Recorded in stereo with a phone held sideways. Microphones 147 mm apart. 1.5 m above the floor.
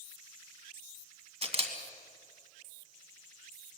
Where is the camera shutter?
40° right (ahead or behind), 2.5 m.